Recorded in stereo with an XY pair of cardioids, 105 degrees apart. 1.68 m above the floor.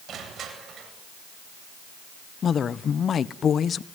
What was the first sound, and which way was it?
Crushing, 60° right.